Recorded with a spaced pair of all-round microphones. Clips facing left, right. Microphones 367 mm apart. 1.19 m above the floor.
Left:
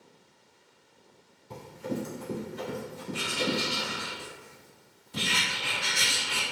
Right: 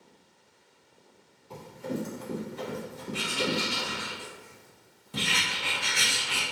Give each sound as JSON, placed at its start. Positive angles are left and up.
{"t": 1.5, "sound": "running footsteps", "side_deg": 25, "distance_m": 1.3}
{"t": 3.1, "sound": "writing", "side_deg": -70, "distance_m": 1.1}